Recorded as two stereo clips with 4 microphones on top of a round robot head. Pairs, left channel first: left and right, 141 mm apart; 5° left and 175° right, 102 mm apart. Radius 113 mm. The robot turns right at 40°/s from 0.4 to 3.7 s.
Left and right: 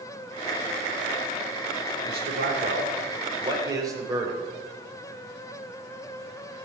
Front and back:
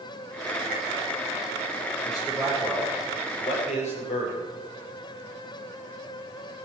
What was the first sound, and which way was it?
A man speaking, 90° right.